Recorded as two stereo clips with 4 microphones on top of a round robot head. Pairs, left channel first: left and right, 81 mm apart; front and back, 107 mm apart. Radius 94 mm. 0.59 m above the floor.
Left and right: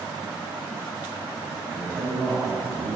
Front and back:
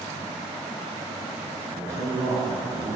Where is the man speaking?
135° right, 1.0 m.